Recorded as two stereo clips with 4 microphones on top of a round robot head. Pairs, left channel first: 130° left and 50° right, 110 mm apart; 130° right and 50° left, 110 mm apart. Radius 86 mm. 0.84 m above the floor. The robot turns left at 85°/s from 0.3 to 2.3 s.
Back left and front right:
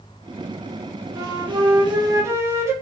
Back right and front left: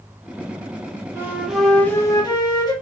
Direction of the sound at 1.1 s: 5° right.